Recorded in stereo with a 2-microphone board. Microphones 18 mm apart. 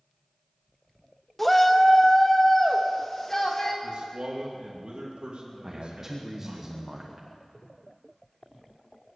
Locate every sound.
1.4 s a shout: 5° left (ahead or behind), 1.0 m; by 3.7 s 25° left (ahead or behind), 3 m
3.8 s a man speaking: 75° right (ahead or behind), 2.5 m
5.6 s a man speaking: 20° right (ahead or behind), 1.3 m